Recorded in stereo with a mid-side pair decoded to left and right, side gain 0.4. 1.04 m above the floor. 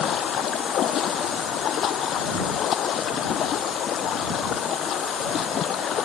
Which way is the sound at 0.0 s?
70° left.